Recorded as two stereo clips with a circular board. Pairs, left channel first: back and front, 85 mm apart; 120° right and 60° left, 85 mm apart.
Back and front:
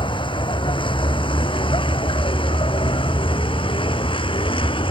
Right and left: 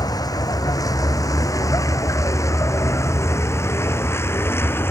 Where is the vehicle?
165° right; by 4.9 s 175° left.